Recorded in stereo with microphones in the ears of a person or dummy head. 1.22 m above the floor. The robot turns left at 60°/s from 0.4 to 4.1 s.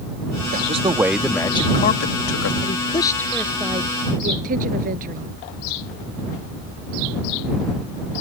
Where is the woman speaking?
45° left; by 5.3 s 45° right.